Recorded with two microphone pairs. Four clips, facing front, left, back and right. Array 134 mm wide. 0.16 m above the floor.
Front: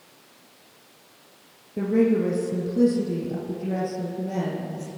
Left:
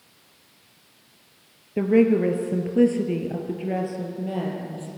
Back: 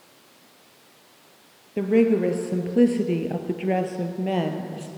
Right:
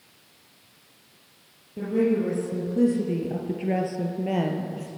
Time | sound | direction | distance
1.8 | a woman speaking | 125° left | 2.5 m